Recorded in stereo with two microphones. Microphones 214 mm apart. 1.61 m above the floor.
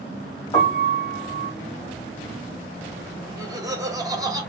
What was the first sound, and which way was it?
A piano, 25° left (ahead or behind).